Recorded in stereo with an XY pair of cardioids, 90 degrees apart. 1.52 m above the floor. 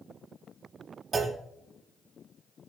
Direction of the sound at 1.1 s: 35° right.